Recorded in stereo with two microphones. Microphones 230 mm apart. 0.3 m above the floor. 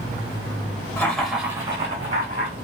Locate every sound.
1.0 s laughter: 10° left (ahead or behind), 0.9 m; by 2.5 s 40° right (ahead or behind), 1.1 m